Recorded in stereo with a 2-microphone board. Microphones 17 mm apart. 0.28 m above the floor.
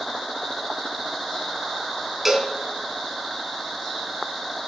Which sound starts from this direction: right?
A cowbell, at 2.2 s.